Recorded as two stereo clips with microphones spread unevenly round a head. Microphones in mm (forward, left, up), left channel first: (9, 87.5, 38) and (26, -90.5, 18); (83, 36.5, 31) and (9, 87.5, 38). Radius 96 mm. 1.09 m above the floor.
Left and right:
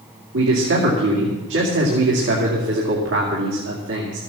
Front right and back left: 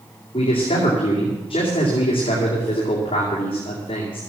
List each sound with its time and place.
0.3 s a man speaking: 80° right, 2.5 m